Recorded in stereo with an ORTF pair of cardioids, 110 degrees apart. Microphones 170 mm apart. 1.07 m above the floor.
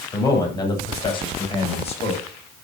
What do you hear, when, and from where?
0.1 s a man speaking: 20° left, 7.5 m; by 2.2 s 40° left, 7.5 m